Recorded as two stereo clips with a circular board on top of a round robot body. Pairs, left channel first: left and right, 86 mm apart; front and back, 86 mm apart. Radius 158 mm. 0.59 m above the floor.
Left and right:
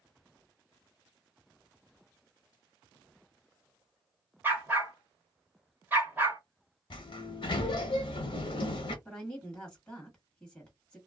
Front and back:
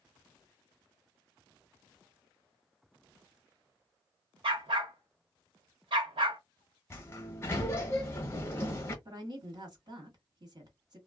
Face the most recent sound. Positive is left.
turn(degrees=165)